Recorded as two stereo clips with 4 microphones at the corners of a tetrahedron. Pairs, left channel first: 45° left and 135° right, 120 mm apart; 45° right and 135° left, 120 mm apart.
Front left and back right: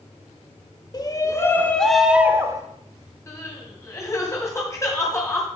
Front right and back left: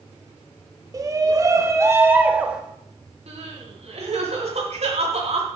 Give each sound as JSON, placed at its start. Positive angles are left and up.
{"t": 0.9, "sound": "a shout", "azimuth_deg": 90, "distance_m": 1.5}
{"t": 3.3, "sound": "crying", "azimuth_deg": 110, "distance_m": 2.5}